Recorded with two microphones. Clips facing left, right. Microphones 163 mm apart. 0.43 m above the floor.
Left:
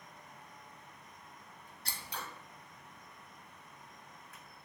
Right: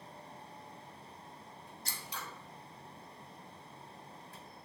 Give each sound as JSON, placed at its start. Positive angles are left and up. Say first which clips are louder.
{"t": 1.9, "sound": "scissors", "louder": "left 2 dB", "side_deg": 60, "distance_m": 0.6}